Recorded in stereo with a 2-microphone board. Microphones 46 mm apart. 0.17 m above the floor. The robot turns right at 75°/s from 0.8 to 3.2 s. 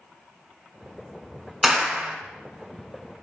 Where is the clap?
Straight behind, 1.6 m; by 2.1 s 140° right, 1.6 m.